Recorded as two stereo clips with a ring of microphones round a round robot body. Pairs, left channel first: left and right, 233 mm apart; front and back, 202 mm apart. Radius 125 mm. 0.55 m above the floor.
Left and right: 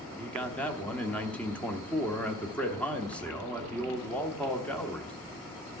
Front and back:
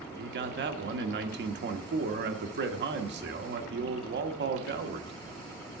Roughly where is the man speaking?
Behind.